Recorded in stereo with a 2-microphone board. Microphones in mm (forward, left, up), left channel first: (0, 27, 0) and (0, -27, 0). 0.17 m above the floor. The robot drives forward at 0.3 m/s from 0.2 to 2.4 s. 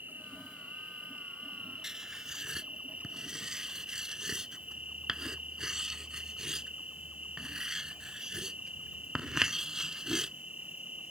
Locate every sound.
0.0 s an insect: 35° right (ahead or behind); by 11.1 s 25° right (ahead or behind)
1.8 s writing: 10° right (ahead or behind)